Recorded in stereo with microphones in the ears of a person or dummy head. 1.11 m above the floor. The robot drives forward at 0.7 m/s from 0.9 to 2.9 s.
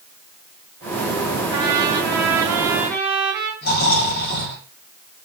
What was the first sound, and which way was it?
A trumpet, 20° right (ahead or behind).